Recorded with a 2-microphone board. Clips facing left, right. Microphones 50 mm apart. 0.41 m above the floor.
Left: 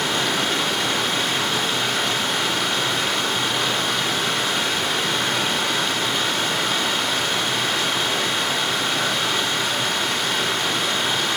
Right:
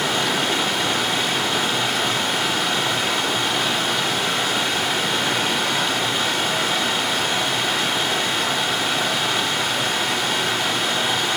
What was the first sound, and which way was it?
Running water, centre (ahead or behind).